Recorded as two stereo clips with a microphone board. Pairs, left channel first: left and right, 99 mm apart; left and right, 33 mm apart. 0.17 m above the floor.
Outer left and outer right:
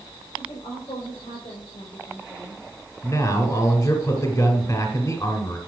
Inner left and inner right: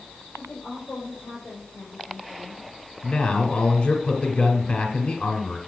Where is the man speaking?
30° left (ahead or behind), 1.7 m.